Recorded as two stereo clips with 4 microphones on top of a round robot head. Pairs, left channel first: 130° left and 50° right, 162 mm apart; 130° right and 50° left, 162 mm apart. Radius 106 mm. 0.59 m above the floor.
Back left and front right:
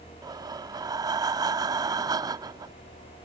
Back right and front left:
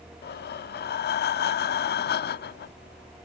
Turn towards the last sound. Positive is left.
turn(degrees=-115)